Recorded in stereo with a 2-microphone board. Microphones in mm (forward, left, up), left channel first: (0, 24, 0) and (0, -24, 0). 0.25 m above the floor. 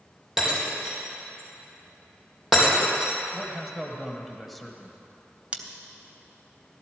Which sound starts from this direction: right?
Scissors, at 5.5 s.